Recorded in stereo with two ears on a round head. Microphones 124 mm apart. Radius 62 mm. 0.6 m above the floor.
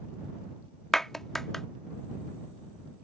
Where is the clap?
5° left (ahead or behind).